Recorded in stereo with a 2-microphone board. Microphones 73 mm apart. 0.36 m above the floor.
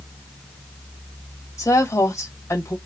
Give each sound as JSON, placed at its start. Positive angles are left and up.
{"t": 1.6, "sound": "a woman speaking", "side_deg": 45, "distance_m": 1.6}